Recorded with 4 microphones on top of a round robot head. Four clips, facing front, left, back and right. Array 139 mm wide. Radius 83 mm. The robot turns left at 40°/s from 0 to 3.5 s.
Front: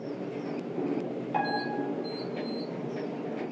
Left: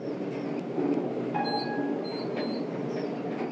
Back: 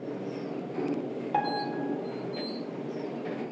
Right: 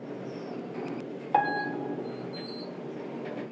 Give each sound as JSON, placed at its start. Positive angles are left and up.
{"t": 1.3, "sound": "a piano", "azimuth_deg": -100, "distance_m": 4.0}